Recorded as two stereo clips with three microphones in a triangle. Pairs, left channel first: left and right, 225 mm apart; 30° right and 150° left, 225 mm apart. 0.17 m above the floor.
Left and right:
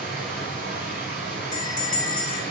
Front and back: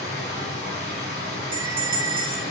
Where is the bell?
125° left, 0.9 m.